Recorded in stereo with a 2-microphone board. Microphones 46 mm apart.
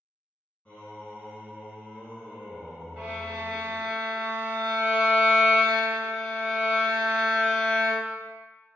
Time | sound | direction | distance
0.7 | singing | 25° left (ahead or behind) | 1.7 m
3.0 | a violin | 5° left (ahead or behind) | 1.7 m